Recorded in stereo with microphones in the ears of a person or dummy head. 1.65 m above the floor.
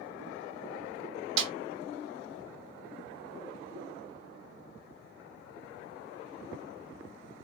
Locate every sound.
1.4 s a snare drum: 40° right (ahead or behind), 1.2 m